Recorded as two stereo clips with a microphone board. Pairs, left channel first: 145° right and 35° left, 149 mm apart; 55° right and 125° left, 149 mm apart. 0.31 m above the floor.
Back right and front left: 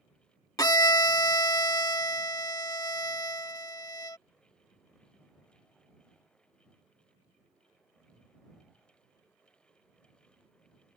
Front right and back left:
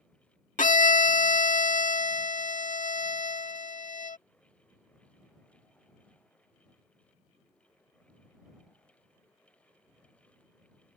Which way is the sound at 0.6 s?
80° right.